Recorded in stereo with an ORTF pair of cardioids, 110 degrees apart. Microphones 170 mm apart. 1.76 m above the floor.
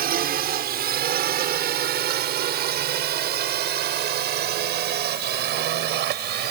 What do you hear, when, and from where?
0.0 s a drone: 65° right; by 6.5 s 75° right